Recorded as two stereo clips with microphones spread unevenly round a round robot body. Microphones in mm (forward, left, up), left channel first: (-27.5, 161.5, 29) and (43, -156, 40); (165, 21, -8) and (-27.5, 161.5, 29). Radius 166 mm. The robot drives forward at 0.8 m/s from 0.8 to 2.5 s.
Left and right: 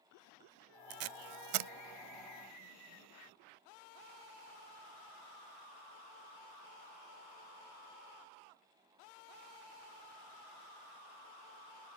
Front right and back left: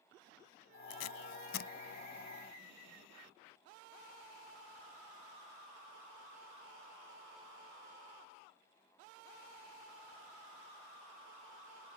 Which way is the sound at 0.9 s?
50° right.